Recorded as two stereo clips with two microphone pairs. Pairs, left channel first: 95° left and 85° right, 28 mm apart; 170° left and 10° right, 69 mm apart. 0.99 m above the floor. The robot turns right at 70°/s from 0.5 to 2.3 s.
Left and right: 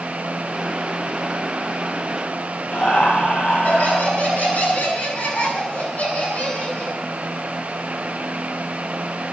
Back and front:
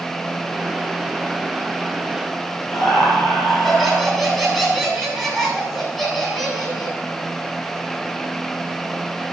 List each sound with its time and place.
2.7 s laughter: 80° left, 8 m